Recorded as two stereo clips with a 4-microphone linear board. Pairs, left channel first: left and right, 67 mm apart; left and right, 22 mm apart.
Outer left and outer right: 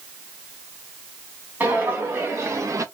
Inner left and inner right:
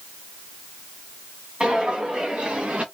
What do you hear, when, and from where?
1.6 s footsteps: 30° right (ahead or behind), 2.0 m; by 2.9 s 55° right (ahead or behind), 0.7 m